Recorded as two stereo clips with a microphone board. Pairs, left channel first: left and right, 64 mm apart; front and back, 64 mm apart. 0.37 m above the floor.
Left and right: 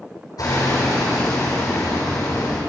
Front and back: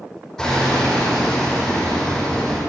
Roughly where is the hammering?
Left.